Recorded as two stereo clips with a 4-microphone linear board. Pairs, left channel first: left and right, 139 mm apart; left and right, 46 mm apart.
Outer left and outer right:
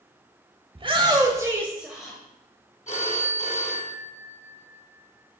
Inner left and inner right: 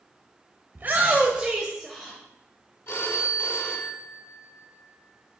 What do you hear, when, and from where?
0.8 s a shout: 40° right (ahead or behind), 1.2 m; by 2.2 s 5° left (ahead or behind), 1.2 m
2.9 s a phone ringing: 55° left (ahead or behind), 1.9 m